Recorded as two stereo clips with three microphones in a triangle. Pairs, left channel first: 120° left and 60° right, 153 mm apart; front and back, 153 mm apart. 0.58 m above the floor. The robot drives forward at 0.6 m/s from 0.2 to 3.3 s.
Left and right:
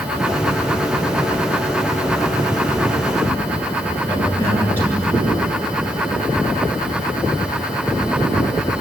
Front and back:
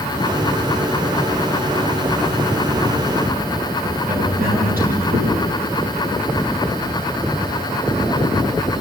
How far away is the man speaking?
About 8 m.